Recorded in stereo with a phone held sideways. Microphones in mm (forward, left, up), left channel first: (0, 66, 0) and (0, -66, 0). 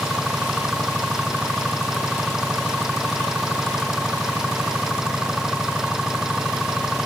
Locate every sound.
0.0 s an engine running: 5° right (ahead or behind)